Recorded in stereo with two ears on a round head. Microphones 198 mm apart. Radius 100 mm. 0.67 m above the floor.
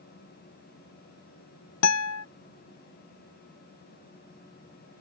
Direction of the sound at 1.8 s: 80° left.